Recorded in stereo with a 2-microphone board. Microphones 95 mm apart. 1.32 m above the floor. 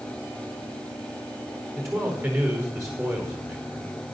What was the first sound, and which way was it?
A man speaking, 30° right (ahead or behind).